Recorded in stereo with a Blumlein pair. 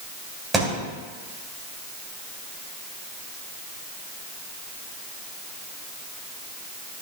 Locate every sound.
0.5 s a thud: 15° right, 2.5 m